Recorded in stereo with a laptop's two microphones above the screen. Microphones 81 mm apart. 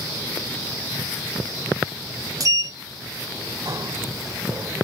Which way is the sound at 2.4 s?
45° right (ahead or behind).